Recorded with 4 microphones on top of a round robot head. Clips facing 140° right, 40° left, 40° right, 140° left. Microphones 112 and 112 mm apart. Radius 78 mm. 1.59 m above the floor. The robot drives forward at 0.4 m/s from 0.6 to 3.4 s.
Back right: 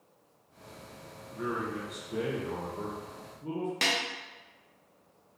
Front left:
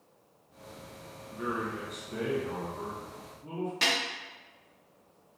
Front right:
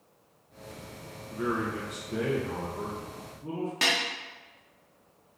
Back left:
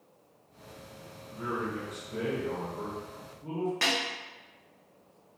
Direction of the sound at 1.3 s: 35° right.